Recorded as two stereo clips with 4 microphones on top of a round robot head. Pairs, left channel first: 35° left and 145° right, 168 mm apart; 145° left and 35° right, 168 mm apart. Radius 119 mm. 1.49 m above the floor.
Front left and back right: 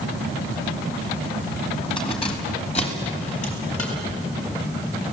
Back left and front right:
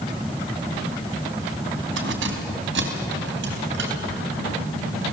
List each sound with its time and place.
2.0 s keys jangling: 30° right, 2 m; by 4.8 s 15° right, 5 m